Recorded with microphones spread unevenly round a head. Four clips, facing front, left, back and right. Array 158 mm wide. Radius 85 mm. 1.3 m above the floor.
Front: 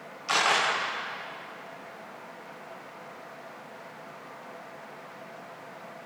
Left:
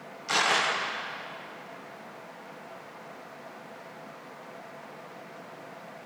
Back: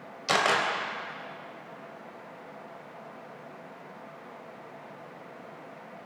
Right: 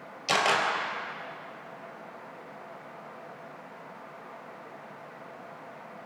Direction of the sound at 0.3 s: 140° right.